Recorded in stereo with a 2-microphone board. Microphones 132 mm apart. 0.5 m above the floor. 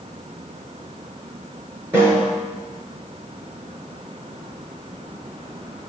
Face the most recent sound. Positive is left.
turn(degrees=-15)  # may be behind; listen again after turning